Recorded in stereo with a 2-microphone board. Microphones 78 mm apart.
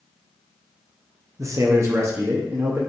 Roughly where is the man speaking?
Right.